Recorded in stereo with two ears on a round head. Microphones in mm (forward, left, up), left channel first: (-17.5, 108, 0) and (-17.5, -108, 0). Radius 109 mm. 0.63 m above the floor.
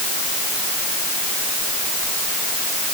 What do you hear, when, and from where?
Only background noise.